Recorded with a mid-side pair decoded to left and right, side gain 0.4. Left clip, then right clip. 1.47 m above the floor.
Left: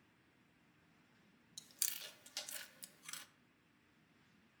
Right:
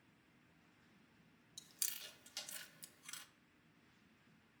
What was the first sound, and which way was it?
Chewing, 30° left.